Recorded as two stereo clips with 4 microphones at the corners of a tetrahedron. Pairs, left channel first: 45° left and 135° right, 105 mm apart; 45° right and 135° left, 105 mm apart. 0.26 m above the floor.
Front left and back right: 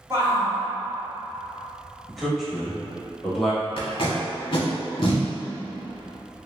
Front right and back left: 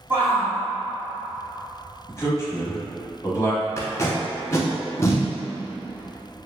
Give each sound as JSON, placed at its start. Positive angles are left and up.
{"t": 0.1, "sound": "a shout", "azimuth_deg": -175, "distance_m": 1.3}
{"t": 2.1, "sound": "a man speaking", "azimuth_deg": -45, "distance_m": 1.1}
{"t": 3.8, "sound": "tape being pulled", "azimuth_deg": 15, "distance_m": 0.7}